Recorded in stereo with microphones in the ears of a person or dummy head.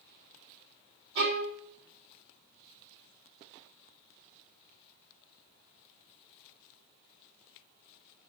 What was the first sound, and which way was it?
A violin, 65° right (ahead or behind).